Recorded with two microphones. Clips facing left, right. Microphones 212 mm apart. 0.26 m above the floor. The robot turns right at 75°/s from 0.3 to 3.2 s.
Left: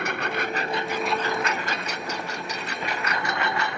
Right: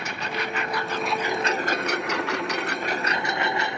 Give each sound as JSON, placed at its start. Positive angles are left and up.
{"t": 0.0, "sound": "a lawn mower", "azimuth_deg": 120}